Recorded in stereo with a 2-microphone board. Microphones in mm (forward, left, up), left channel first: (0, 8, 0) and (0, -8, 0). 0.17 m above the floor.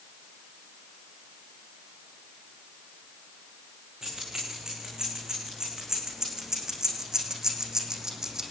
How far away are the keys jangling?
About 9.5 m.